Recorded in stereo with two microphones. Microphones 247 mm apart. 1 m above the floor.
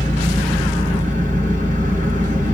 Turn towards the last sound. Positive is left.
turn(degrees=-30)  # may be behind; listen again after turning